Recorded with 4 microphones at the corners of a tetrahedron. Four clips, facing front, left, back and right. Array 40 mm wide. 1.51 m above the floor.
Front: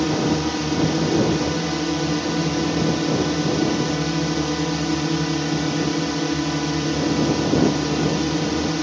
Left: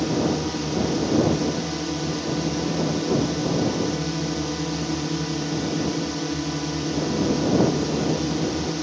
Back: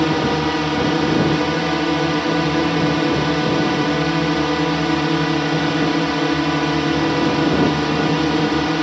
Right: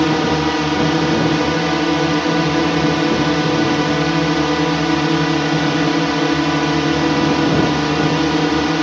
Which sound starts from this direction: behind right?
A drone, at 0.0 s.